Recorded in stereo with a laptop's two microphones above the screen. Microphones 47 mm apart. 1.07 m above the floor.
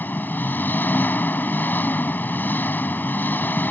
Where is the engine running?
45° left (ahead or behind).